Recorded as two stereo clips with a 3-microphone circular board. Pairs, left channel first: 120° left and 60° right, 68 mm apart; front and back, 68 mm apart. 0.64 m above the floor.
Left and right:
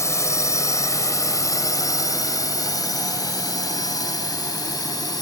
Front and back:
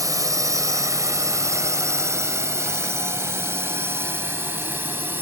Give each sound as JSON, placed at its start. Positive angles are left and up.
{"t": 0.0, "sound": "a drone", "azimuth_deg": 155}